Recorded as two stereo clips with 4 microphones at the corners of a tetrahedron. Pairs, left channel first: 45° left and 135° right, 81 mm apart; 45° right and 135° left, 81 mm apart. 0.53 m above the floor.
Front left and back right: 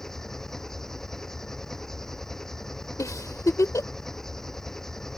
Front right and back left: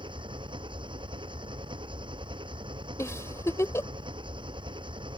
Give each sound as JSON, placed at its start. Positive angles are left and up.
{"t": 0.0, "sound": "an engine running", "azimuth_deg": 130}
{"t": 3.0, "sound": "a giggle", "azimuth_deg": 0}